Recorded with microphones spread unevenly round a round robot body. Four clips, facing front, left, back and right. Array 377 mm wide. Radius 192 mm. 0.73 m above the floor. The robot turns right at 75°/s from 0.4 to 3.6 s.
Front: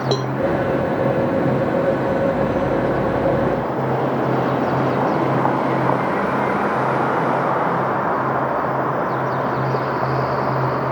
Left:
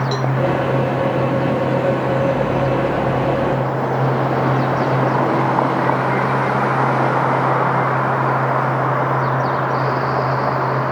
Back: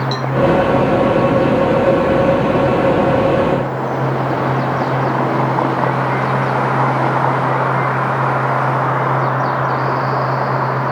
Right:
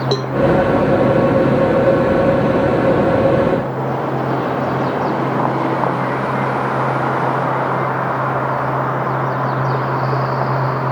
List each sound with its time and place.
0.1 s a cowbell: 55° right